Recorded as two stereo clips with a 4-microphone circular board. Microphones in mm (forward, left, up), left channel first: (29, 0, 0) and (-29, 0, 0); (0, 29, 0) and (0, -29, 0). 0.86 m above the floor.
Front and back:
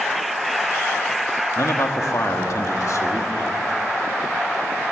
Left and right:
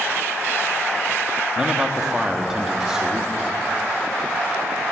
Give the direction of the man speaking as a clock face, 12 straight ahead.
12 o'clock.